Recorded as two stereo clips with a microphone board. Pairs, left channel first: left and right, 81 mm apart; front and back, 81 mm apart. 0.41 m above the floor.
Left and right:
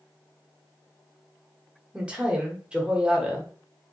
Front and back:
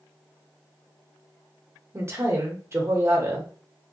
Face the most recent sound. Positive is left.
turn(degrees=-155)